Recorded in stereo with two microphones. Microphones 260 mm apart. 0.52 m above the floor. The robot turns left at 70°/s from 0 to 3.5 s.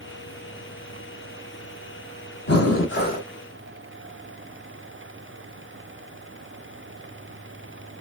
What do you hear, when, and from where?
2.5 s breathing: 80° left, 0.8 m; by 3.3 s 25° left, 0.8 m